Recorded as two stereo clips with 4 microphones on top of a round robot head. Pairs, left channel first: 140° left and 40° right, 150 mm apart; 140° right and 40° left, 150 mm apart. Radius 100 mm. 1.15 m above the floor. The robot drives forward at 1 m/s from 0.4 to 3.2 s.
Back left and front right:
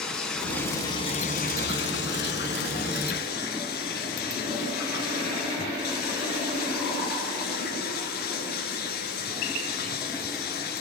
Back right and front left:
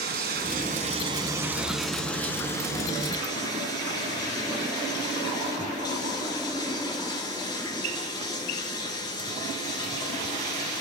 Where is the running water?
55° left, 1.5 m; by 10.8 s 155° left, 2.5 m.